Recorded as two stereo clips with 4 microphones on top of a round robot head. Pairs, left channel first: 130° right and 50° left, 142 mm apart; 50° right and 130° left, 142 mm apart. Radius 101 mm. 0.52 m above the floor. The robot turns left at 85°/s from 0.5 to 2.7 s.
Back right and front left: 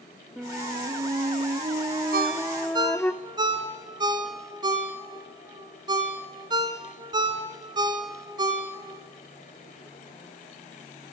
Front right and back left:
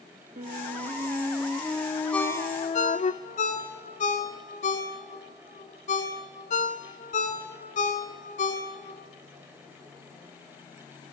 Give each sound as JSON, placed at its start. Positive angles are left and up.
{"t": 0.4, "sound": "a flute", "azimuth_deg": 130, "distance_m": 1.1}
{"t": 2.1, "sound": "a ringtone", "azimuth_deg": 35, "distance_m": 3.0}